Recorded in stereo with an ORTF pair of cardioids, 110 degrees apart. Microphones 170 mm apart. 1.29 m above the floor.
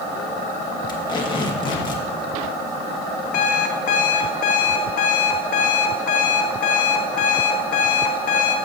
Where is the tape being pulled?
25° left, 1.5 m.